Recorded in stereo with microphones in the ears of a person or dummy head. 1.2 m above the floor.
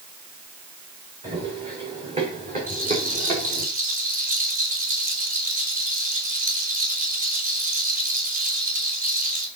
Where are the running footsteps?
35° right (ahead or behind), 7 m; by 3.7 s 45° right (ahead or behind), 5 m.